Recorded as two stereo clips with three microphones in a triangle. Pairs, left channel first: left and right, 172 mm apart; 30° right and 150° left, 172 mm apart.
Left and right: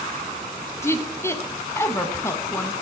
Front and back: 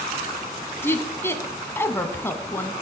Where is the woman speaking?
30° left, 1.2 m.